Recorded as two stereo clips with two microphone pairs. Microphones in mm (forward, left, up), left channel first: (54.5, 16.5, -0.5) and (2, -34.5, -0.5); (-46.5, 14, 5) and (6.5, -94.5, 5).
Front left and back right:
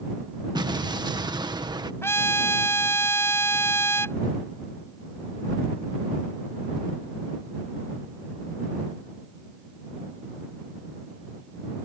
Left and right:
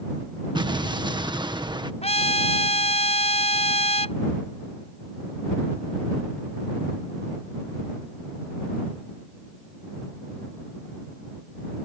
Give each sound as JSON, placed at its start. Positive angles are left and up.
{"t": 0.6, "sound": "an explosion", "azimuth_deg": -115}
{"t": 2.0, "sound": "a trumpet", "azimuth_deg": 95}